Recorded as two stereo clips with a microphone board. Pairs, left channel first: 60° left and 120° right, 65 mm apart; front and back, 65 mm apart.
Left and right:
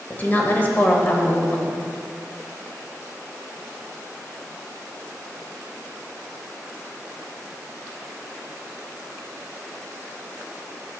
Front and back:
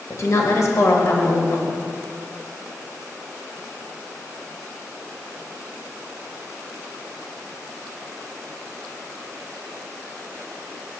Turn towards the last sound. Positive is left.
turn(degrees=10)